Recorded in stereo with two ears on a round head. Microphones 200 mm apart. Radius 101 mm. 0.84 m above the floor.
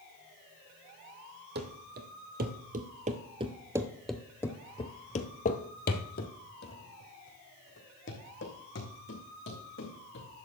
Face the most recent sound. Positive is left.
turn(degrees=55)  # may be behind; listen again after turning